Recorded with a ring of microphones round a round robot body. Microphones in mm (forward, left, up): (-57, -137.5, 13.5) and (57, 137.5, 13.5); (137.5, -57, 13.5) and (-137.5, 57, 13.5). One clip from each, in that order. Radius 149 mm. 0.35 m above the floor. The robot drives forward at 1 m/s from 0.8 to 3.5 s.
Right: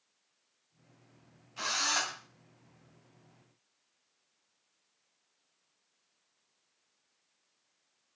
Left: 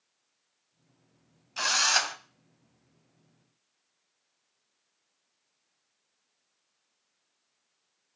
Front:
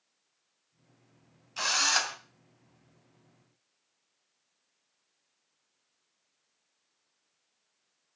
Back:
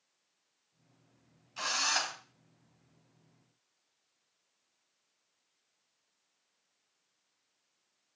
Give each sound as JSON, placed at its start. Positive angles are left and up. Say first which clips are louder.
{"t": 1.6, "sound": "a drill", "louder": "left 6 dB, front 4 dB", "azimuth_deg": 45, "distance_m": 2.5}